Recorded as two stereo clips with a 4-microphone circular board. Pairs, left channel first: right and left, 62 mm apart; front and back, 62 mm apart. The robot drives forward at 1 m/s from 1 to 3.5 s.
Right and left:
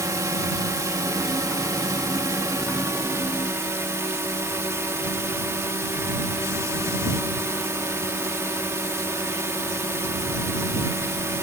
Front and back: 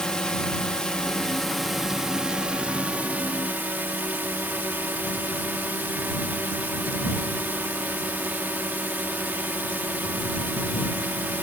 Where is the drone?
80° left; by 11.4 s 125° left.